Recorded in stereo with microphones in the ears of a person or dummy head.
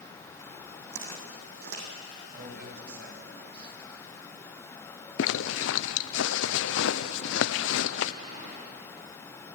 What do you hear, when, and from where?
0.9 s footsteps: 65° right (ahead or behind), 3.5 m
2.3 s a man speaking: 65° right (ahead or behind), 6 m
5.2 s a zipper: 75° left (ahead or behind), 0.7 m